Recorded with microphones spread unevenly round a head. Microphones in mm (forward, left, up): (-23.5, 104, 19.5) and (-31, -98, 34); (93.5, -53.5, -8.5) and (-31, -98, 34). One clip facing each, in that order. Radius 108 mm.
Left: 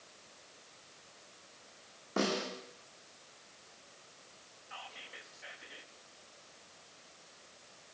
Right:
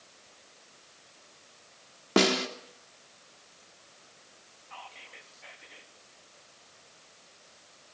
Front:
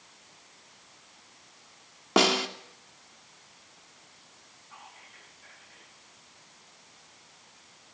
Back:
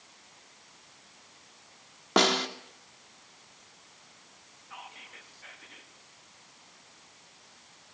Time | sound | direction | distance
2.2 | a snare drum | 70° right | 3 m
4.7 | whispering | 170° left | 3.5 m